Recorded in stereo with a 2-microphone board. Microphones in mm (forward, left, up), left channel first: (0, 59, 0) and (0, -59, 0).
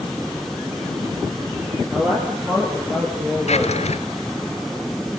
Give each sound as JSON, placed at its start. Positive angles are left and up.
{"t": 1.9, "sound": "a woman speaking", "side_deg": -10, "distance_m": 4.0}
{"t": 3.5, "sound": "a drawer", "side_deg": 70, "distance_m": 1.5}